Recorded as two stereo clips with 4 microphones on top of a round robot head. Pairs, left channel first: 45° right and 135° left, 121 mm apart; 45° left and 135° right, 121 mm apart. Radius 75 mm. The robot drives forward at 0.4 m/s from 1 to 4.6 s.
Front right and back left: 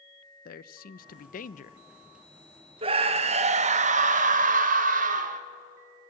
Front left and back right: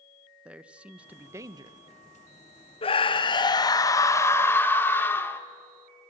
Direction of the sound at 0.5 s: 55° right.